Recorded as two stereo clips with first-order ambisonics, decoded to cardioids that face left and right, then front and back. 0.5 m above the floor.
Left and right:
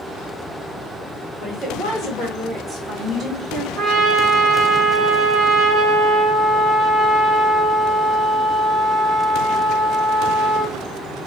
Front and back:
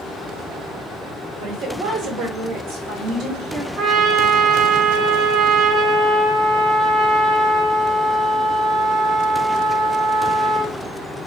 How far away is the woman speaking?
About 2.5 m.